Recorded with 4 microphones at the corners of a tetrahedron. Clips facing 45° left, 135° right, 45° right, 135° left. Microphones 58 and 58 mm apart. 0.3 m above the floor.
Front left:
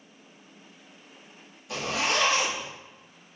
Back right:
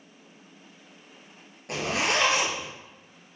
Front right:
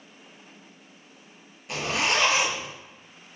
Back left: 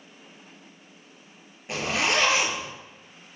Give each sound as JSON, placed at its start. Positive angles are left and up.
{"t": 1.7, "sound": "a zipper", "azimuth_deg": -160, "distance_m": 3.0}